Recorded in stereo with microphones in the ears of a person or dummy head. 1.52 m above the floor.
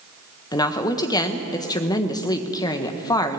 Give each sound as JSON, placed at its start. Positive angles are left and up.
{"t": 0.5, "sound": "a woman speaking", "side_deg": 20, "distance_m": 1.4}